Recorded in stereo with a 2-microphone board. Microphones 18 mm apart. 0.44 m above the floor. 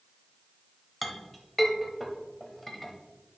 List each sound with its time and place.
1.0 s a clink: centre (ahead or behind), 1.0 m